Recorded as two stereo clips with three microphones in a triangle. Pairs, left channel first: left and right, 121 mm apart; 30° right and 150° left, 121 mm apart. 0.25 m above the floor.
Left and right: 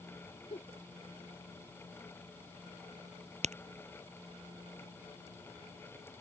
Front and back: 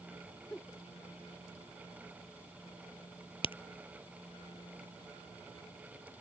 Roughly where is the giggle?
Ahead left.